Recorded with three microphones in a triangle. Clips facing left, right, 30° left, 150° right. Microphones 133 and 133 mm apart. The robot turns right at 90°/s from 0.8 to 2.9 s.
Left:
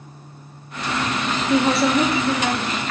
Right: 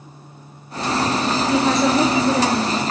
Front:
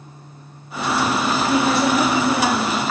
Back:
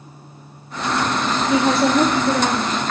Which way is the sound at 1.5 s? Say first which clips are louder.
Left 1 dB, back 3 dB; 155° left.